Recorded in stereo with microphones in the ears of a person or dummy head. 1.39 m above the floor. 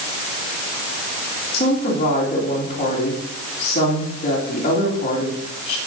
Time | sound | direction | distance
1.5 | a woman speaking | 35° left (ahead or behind) | 2.5 m